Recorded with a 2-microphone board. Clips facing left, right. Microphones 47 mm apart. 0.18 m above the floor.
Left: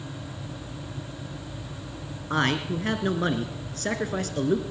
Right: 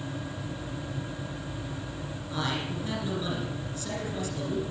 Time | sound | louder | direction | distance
2.3 | a man speaking | left 7 dB | 55° left (ahead or behind) | 3 m